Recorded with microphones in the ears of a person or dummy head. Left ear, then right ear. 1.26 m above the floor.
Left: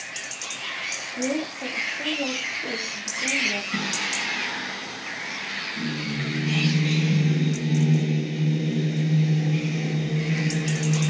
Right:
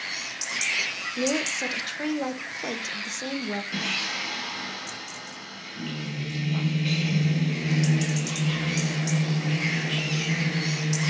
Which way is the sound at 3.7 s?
25° right (ahead or behind).